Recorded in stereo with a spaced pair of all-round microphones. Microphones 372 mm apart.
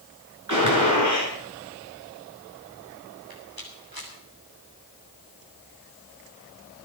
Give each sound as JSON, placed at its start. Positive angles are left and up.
{"t": 0.5, "sound": "a gunshot", "side_deg": -55, "distance_m": 7.0}
{"t": 3.3, "sound": "a rattle", "side_deg": -75, "distance_m": 6.5}